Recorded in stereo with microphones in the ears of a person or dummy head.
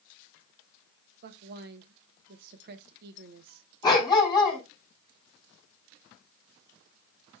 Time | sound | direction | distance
1.2 | a woman speaking | 60° right (ahead or behind) | 1.3 m
3.8 | a dog barking | 20° left (ahead or behind) | 4.5 m